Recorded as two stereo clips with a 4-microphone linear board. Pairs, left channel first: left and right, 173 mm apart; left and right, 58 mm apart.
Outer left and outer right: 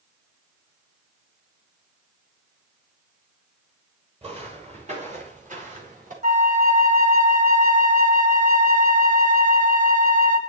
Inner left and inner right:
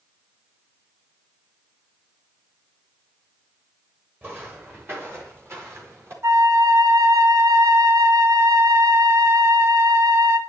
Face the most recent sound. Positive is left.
turn(degrees=-50)  # may be behind; listen again after turning